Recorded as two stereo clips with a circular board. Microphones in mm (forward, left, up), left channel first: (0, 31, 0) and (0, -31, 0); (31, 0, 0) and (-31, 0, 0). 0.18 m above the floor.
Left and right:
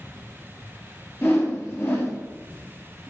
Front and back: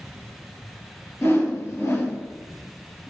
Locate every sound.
1.2 s a whoosh: 45° left, 2.5 m